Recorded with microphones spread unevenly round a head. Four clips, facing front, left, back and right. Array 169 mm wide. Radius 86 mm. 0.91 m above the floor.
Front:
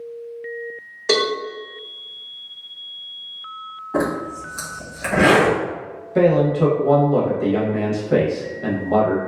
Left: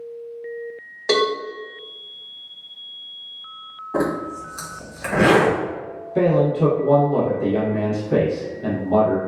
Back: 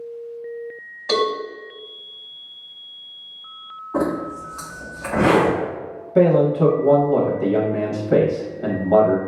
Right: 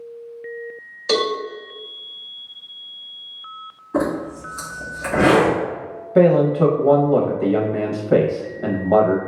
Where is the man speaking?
90° right, 0.7 m.